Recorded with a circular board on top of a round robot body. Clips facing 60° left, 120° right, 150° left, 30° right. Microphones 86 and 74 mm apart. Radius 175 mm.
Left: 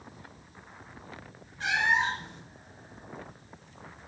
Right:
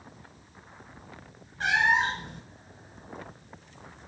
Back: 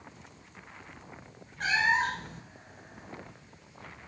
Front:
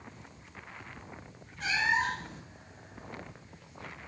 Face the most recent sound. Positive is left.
turn(degrees=-165)